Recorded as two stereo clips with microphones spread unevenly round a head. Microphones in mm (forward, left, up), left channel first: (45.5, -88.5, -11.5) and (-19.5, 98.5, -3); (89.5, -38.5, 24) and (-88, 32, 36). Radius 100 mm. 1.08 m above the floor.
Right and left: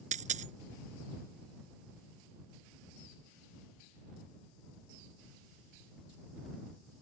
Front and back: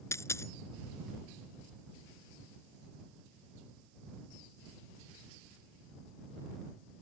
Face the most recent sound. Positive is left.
turn(degrees=55)